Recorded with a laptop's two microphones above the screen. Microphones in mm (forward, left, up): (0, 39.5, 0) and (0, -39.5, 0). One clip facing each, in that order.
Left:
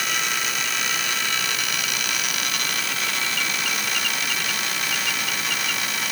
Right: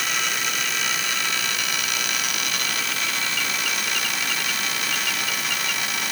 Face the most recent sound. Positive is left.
No sound to turn to.